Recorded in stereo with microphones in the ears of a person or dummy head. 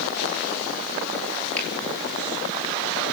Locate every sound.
1.6 s a finger snap: 15° left (ahead or behind), 9.5 m